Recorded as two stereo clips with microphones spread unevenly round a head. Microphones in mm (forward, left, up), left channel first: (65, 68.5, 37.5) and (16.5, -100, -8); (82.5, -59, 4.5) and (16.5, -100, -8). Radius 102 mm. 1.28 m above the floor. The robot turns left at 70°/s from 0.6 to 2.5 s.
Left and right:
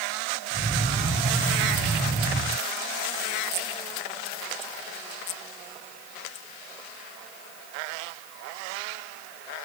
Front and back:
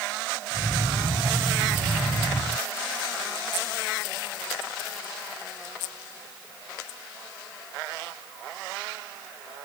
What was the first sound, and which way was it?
Only background noise.